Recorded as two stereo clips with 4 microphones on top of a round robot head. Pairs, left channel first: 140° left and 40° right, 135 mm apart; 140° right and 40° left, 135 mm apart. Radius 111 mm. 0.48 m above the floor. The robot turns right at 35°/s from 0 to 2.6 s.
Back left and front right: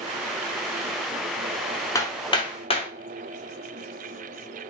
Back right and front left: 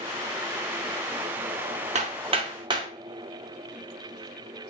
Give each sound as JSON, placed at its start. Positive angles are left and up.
{"t": 1.9, "sound": "hammering", "azimuth_deg": 70, "distance_m": 1.0}